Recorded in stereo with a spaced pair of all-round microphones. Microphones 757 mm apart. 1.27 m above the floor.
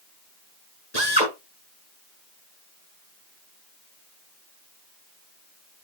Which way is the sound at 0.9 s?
55° left (ahead or behind).